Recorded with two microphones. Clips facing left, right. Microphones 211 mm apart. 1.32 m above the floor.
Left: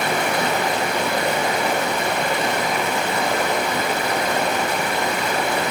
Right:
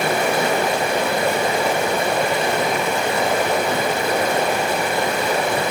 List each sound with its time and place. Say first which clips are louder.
0.0 s running water: right 3 dB; 25° right (ahead or behind), 2.5 m